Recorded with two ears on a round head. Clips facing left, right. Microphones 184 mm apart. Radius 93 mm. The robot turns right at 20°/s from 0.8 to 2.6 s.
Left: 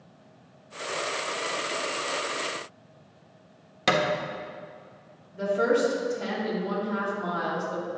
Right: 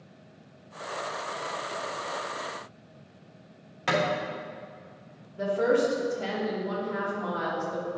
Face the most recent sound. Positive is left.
turn(degrees=25)  # may be behind; listen again after turning